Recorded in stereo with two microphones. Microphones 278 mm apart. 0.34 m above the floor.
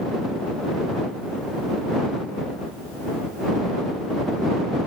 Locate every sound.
Only background noise.